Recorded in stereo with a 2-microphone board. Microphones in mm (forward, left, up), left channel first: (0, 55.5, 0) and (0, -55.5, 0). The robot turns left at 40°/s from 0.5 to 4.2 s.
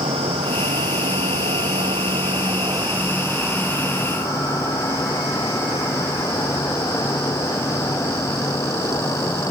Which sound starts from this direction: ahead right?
An insect, at 0.0 s.